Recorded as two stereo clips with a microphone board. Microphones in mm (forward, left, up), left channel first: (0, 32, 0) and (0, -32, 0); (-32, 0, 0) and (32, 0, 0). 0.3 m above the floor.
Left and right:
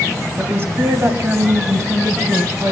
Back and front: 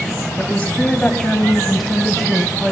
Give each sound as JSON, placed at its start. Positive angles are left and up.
{"t": 0.4, "sound": "a woman speaking", "azimuth_deg": -125, "distance_m": 1.8}